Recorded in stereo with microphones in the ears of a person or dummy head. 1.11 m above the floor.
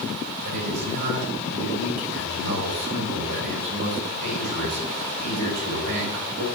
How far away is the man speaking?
About 3.5 m.